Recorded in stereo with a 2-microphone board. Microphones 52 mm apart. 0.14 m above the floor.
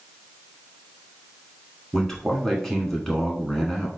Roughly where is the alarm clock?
I don't hear an alarm clock.